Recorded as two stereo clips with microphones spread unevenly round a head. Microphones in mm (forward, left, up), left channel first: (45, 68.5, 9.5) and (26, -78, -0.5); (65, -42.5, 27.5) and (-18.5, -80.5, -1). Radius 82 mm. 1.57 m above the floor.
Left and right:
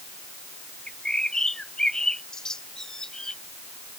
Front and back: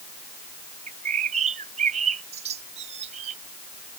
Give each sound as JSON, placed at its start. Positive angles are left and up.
{"t": 0.9, "sound": "a bird", "azimuth_deg": 170}